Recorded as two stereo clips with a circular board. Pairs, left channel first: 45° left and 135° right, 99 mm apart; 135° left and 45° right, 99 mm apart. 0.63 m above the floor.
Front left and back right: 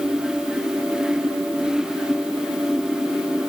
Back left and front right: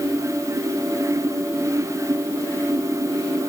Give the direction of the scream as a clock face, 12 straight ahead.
No scream in this recording.